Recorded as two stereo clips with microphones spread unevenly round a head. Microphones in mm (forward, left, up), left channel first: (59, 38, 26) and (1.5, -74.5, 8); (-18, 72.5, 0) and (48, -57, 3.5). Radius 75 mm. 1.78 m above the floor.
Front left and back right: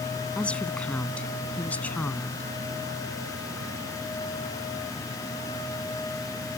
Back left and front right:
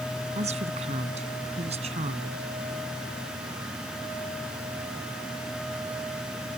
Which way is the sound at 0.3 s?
15° right.